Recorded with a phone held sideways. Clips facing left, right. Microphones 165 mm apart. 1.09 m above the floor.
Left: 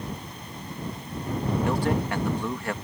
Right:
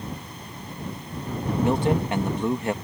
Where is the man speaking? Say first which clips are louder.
Right 5 dB; 25° right (ahead or behind).